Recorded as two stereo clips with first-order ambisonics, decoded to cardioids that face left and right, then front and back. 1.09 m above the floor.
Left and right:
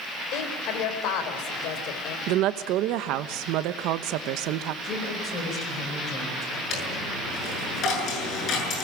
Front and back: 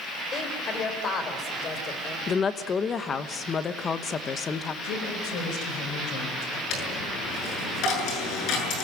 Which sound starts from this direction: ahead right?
A woman speaking, at 2.3 s.